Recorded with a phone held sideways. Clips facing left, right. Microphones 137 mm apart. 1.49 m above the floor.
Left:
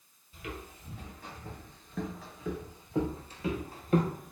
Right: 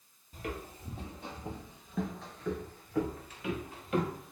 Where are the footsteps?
40° right (ahead or behind), 1.9 m; by 4.3 s 45° left (ahead or behind), 2 m.